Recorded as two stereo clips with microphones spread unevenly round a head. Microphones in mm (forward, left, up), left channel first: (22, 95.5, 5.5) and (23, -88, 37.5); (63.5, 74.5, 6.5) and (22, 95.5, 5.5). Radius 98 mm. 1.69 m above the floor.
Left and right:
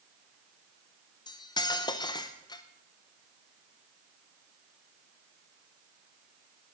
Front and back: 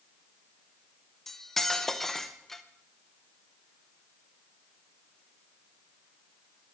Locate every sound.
1.3 s cutlery clinking: 35° left, 0.8 m